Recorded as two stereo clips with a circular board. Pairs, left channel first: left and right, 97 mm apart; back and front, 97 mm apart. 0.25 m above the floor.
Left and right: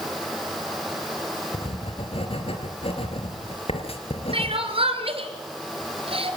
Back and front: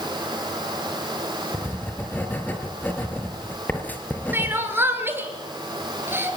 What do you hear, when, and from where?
1.5 s writing: 105° left, 4 m
4.3 s crying: 70° right, 3.5 m